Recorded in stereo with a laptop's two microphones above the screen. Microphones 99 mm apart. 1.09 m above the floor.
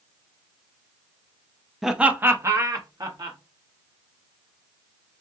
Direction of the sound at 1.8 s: Centre (ahead or behind).